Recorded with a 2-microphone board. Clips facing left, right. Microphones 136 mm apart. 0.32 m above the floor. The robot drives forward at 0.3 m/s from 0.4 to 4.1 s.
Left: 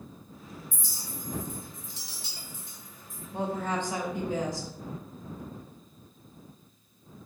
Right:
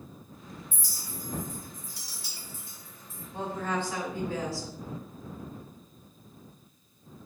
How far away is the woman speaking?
About 1.0 m.